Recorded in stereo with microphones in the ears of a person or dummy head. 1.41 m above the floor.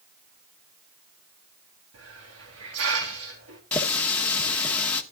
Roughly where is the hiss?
Right.